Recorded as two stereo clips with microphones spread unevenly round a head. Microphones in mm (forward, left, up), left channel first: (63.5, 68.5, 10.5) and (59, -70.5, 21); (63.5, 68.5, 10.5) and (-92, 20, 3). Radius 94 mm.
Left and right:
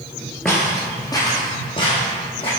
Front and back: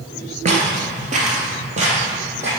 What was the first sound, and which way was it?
Footsteps, straight behind.